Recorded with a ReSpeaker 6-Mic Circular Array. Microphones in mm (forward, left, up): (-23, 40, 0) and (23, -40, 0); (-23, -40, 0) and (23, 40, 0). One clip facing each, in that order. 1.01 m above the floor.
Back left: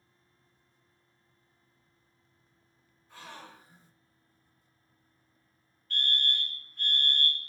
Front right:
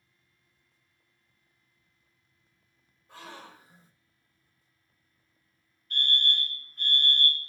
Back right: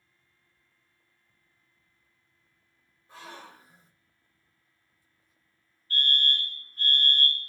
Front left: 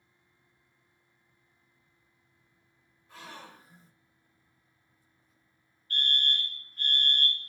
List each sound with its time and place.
3.1 s a gasp: 60° right, 1.4 m
5.9 s a fire alarm: 145° right, 1.7 m